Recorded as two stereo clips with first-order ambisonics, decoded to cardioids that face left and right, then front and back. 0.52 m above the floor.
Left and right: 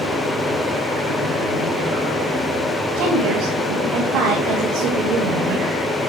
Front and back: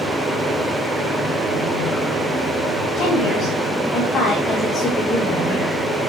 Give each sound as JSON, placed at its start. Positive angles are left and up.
{"t": 3.0, "sound": "a woman speaking", "azimuth_deg": -70, "distance_m": 3.5}